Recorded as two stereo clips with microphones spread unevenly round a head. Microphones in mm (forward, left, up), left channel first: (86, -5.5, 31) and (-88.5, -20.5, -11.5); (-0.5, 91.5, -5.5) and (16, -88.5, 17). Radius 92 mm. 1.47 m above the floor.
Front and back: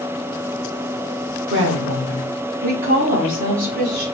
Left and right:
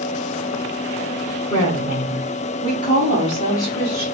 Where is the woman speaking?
160° left, 1.4 m; by 4.0 s 165° left, 3.5 m.